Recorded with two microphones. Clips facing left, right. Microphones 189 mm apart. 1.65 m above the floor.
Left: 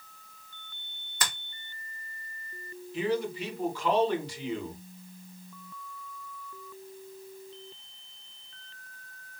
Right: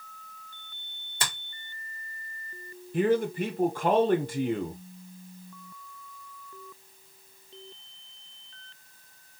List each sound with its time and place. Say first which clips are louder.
1.2 s a finger snap: even; 30° right (ahead or behind), 1.1 m
2.9 s a man speaking: right 5 dB; 55° right (ahead or behind), 0.5 m